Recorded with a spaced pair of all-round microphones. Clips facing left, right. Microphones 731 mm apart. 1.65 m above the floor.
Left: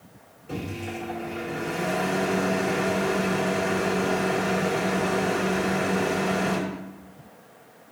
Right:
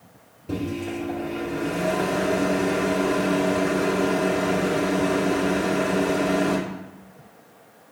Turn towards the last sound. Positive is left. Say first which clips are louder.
# right 6 dB
turn(degrees=-55)  # may be behind; listen again after turning